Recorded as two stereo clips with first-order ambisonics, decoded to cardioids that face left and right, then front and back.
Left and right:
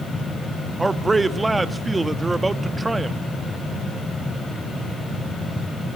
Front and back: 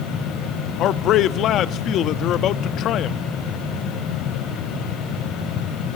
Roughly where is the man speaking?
Ahead.